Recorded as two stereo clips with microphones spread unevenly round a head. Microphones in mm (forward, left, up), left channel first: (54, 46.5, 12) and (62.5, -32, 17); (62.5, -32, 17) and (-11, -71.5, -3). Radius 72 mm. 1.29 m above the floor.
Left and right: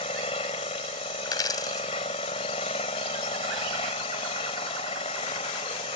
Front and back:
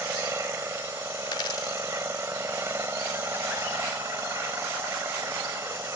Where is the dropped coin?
65° left.